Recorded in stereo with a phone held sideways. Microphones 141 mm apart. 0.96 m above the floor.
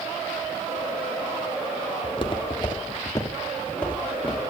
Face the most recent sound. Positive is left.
turn(degrees=5)  # may be behind; listen again after turning